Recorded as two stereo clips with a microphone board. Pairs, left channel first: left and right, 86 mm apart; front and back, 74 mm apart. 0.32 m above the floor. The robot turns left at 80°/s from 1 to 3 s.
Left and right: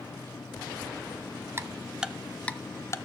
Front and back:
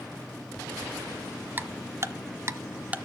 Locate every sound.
1.6 s ticking: 130° right, 0.6 m; by 3.0 s 115° left, 0.6 m